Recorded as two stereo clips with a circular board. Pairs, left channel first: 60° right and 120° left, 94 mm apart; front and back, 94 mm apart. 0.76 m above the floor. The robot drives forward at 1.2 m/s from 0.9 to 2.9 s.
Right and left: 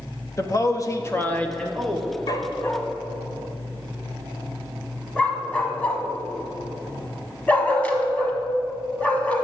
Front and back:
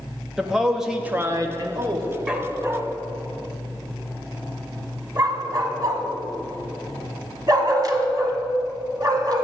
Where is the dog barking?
100° right, 1.0 m; by 9.4 s 135° right, 1.4 m.